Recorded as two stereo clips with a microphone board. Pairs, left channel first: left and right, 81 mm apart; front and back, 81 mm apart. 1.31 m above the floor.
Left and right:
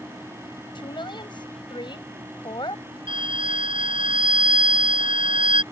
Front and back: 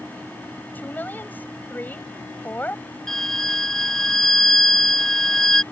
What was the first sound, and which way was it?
A woman speaking, 65° left.